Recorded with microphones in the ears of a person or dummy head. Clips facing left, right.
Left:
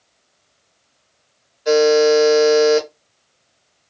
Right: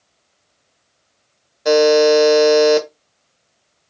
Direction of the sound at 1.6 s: 75° right (ahead or behind).